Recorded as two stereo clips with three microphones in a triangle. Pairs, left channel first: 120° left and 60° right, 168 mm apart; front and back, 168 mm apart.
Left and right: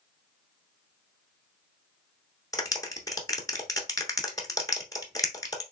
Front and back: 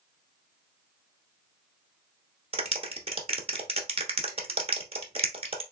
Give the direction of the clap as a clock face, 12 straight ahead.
6 o'clock.